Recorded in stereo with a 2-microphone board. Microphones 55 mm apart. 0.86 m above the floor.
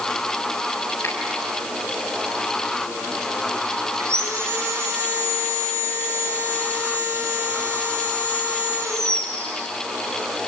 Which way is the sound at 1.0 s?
55° left (ahead or behind).